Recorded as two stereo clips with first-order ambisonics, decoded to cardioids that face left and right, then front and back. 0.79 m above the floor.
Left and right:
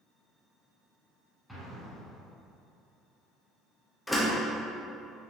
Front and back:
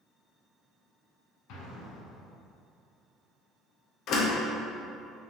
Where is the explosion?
Straight ahead, 1.3 m.